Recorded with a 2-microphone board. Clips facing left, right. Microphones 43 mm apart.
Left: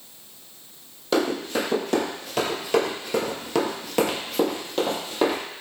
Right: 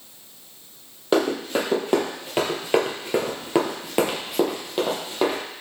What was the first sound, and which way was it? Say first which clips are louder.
Running footsteps: right 2 dB; 25° right (ahead or behind).